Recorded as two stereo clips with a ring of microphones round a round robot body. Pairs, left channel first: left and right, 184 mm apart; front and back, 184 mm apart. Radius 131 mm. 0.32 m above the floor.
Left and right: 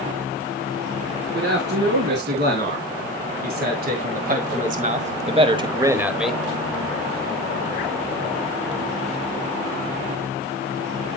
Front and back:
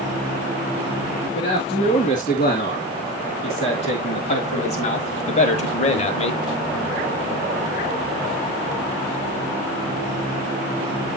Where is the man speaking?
70° right, 3.5 m; by 6.4 s 5° left, 1.0 m.